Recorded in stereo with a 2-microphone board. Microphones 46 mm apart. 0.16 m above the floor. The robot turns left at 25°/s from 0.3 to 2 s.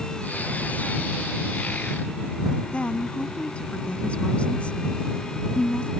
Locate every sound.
2.7 s a woman speaking: 25° left (ahead or behind)